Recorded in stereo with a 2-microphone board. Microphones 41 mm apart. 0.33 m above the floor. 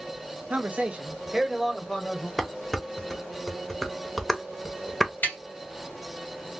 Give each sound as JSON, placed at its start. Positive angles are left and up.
{"t": 0.5, "sound": "a man speaking", "side_deg": -45, "distance_m": 1.2}
{"t": 2.4, "sound": "dishes clattering", "side_deg": 5, "distance_m": 0.6}
{"t": 5.2, "sound": "tapping", "side_deg": 50, "distance_m": 2.5}